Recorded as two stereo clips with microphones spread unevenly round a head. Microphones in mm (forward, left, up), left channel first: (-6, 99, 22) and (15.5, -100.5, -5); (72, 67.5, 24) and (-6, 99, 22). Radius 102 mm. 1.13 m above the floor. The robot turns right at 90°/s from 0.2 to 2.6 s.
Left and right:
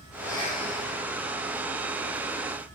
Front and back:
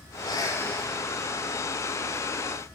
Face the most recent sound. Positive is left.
turn(degrees=-135)